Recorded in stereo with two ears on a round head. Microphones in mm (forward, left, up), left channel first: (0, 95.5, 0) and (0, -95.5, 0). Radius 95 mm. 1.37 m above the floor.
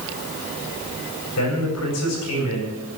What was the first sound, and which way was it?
A man speaking, 80° left.